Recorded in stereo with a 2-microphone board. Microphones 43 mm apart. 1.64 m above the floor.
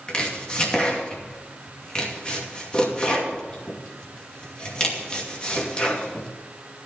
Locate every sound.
0.1 s chopping: 25° left (ahead or behind), 2.5 m